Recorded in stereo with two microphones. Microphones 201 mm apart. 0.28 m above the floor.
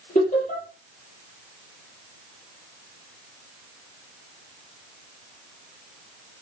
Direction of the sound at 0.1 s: 40° left (ahead or behind).